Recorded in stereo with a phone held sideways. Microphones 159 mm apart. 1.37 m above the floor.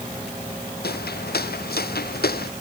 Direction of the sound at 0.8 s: 80° left.